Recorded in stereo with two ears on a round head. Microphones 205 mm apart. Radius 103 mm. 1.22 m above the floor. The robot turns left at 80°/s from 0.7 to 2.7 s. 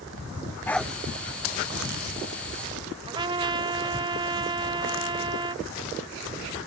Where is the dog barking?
10° left (ahead or behind); by 0.9 s 10° right (ahead or behind).